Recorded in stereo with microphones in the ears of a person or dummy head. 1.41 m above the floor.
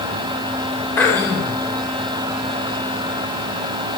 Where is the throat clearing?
10° left (ahead or behind), 2 m.